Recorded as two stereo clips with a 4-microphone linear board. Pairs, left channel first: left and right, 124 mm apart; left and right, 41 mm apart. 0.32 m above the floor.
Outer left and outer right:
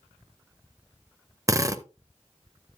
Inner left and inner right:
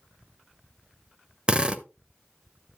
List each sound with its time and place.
1.5 s a drill: 25° right (ahead or behind), 0.7 m